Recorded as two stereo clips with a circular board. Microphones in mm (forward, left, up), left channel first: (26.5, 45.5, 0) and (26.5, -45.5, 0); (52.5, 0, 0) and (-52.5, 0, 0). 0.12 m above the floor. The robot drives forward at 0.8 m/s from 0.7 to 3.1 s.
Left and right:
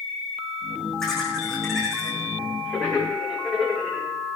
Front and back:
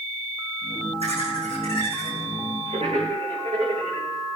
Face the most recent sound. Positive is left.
turn(degrees=175)